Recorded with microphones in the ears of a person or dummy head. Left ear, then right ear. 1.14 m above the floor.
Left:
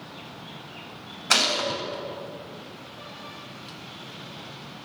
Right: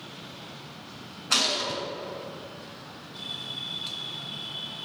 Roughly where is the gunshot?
Left.